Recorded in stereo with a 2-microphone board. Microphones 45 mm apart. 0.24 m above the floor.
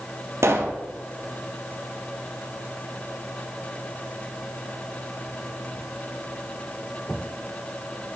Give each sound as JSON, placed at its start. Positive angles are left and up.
{"t": 0.4, "sound": "a pop", "side_deg": -80, "distance_m": 1.8}